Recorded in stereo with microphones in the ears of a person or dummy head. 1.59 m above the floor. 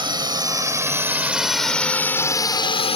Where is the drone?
20° right (ahead or behind); by 3.0 s 30° left (ahead or behind).